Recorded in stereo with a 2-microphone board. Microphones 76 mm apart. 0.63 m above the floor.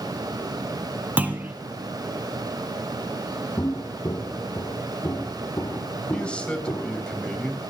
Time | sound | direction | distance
1.2 | a clunk | 20° right (ahead or behind) | 2 m
3.6 | footsteps | 40° left (ahead or behind) | 1.6 m
6.1 | a man speaking | 15° left (ahead or behind) | 3.5 m